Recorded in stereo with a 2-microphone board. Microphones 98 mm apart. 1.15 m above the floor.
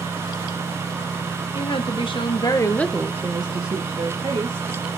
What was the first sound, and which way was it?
A woman speaking, 70° left (ahead or behind).